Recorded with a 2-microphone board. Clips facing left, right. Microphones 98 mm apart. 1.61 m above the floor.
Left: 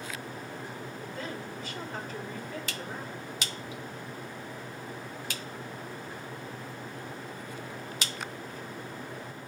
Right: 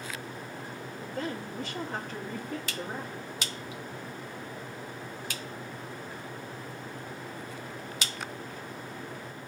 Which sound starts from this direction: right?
A woman speaking, at 1.0 s.